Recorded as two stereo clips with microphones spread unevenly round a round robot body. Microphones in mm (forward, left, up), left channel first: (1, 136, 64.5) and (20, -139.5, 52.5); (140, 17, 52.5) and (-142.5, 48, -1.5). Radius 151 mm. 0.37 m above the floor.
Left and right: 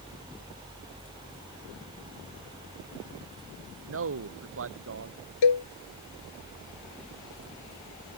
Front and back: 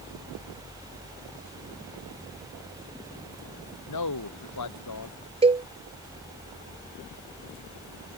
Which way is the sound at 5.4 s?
100° left.